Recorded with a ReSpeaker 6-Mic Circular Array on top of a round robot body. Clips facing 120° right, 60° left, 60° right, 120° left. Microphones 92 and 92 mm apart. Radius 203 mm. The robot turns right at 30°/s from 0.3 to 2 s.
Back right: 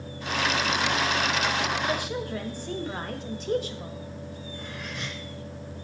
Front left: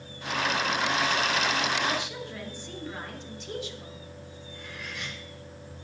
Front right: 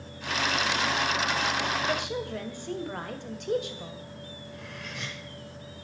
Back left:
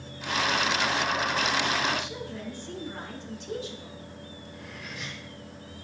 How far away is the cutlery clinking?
About 4 m.